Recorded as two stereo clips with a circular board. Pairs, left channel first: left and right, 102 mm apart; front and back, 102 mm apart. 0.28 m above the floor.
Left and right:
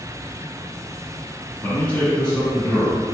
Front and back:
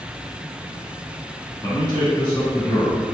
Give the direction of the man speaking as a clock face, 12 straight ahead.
11 o'clock.